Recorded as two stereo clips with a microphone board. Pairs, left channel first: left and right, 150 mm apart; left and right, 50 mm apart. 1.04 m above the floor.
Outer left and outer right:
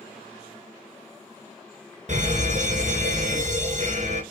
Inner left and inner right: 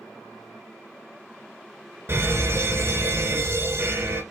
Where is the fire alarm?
50° right (ahead or behind), 2.5 m.